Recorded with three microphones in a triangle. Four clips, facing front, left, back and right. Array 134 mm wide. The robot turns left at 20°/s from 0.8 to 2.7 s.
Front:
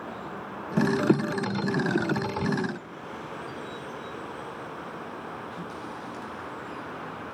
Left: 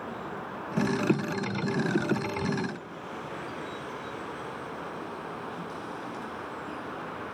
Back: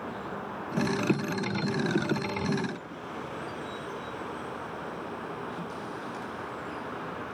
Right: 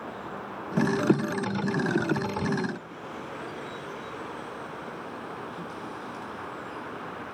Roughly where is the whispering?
I don't hear whispering.